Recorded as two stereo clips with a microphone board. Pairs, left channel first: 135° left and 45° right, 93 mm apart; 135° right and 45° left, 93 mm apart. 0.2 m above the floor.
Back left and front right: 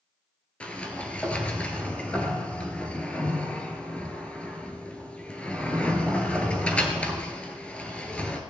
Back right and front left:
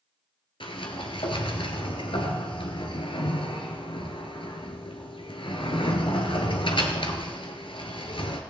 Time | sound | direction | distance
0.6 | a sliding door | 150° right | 1.5 m